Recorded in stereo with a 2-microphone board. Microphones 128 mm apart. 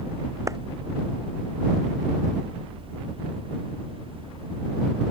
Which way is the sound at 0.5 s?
25° right (ahead or behind).